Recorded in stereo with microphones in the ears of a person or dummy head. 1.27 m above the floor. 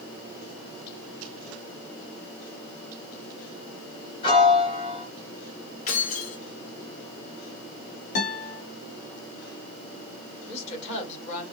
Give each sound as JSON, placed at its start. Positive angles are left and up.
{"t": 4.2, "sound": "a piano", "side_deg": 40, "distance_m": 1.2}
{"t": 5.9, "sound": "keys jangling", "side_deg": 50, "distance_m": 1.1}
{"t": 8.2, "sound": "a guitar", "side_deg": 55, "distance_m": 1.7}
{"t": 10.5, "sound": "a woman speaking", "side_deg": 45, "distance_m": 1.5}